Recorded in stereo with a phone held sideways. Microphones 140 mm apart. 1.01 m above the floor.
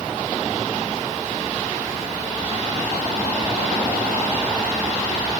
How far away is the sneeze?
No sneeze in this recording.